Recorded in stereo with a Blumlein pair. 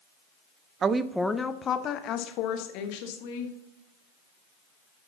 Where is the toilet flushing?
No toilet flushing in this recording.